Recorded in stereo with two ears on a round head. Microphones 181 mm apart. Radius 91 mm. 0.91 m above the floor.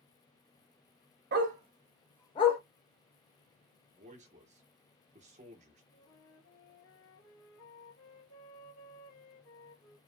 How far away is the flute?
About 1.4 m.